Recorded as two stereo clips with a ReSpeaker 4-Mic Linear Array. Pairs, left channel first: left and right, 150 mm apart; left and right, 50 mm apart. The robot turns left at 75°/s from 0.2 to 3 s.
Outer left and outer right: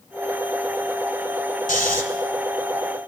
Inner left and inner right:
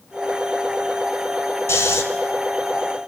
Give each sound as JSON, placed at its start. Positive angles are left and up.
{"t": 1.7, "sound": "snoring", "side_deg": 70, "distance_m": 1.4}